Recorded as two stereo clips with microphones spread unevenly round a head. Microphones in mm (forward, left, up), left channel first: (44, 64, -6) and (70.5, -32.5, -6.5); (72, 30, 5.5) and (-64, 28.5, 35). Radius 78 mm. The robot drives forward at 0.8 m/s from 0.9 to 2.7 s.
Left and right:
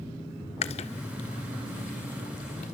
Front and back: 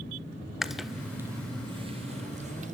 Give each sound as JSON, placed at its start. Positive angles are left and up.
{"t": 0.6, "sound": "chewing", "azimuth_deg": 90, "distance_m": 1.0}